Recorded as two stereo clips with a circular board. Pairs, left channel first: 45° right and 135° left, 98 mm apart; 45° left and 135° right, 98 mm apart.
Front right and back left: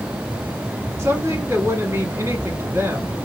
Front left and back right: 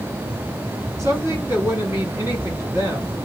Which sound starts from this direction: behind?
A woman speaking, at 1.0 s.